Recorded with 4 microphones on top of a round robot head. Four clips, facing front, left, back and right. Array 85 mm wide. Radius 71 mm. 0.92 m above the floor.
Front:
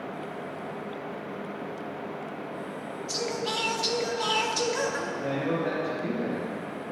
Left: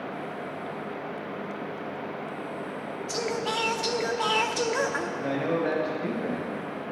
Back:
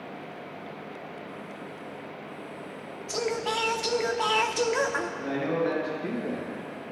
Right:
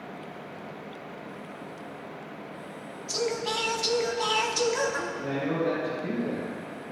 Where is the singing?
140° left, 0.9 m.